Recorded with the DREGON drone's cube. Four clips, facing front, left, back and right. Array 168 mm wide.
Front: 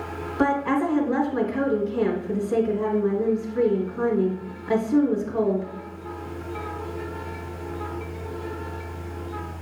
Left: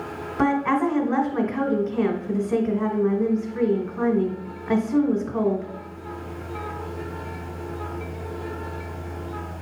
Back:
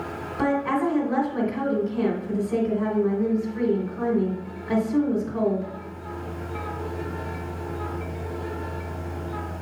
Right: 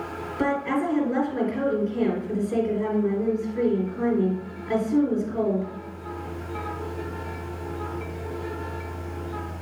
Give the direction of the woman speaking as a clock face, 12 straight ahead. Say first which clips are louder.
Left 4 dB, front 1 dB; 9 o'clock.